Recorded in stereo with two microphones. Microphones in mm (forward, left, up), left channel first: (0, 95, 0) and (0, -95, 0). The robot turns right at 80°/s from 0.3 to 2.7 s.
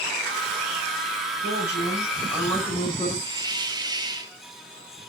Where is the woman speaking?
70° right, 6.5 m; by 3.1 s 30° left, 6.5 m.